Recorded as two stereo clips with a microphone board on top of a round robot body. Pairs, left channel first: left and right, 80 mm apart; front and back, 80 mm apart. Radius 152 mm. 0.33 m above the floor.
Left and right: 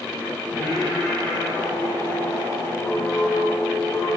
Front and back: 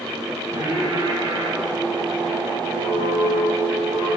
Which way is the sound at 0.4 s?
140° left.